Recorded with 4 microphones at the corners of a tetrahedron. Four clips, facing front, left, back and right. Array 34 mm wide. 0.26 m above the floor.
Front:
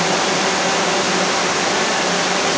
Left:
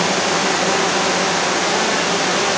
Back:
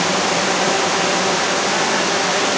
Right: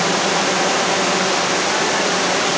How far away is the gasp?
No gasp in this recording.